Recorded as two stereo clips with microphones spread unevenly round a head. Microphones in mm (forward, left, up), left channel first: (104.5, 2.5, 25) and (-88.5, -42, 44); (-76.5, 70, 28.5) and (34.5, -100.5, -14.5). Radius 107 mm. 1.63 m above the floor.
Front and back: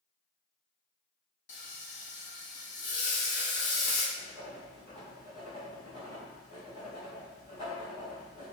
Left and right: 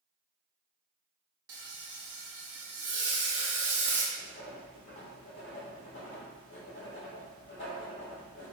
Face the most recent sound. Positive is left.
turn(degrees=80)